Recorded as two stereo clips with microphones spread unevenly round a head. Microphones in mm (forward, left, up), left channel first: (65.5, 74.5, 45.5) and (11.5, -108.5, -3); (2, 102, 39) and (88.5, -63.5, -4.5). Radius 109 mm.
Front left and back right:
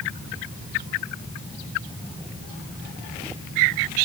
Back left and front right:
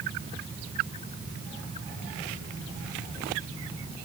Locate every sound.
Only background noise.